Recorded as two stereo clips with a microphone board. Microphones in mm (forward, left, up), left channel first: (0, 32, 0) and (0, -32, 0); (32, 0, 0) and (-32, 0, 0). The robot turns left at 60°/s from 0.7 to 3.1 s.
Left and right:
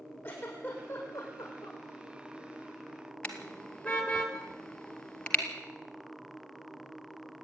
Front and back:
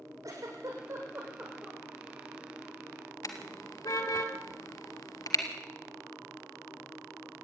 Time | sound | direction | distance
0.2 | a giggle | 145° left | 8 m
3.2 | a car horn | 15° left | 2.5 m